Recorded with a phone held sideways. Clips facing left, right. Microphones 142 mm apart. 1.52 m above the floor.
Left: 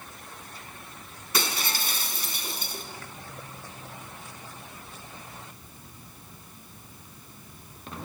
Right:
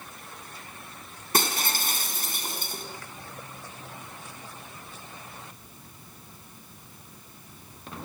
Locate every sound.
1.3 s breaking glass: 50° right (ahead or behind), 4.5 m